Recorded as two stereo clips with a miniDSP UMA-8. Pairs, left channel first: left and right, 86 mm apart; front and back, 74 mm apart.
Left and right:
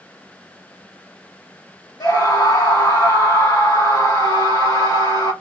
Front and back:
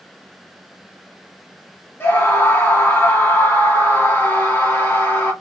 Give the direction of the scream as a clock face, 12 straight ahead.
10 o'clock.